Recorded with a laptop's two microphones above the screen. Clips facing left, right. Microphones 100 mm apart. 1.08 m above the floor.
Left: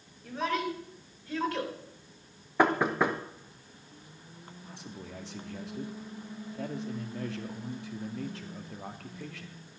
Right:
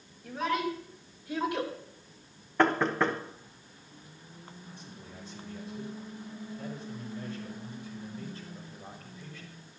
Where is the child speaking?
5° right (ahead or behind), 4.5 m; by 1.7 s 20° right (ahead or behind), 4 m.